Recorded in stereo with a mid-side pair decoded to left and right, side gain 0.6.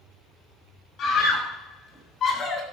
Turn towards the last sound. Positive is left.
turn(degrees=35)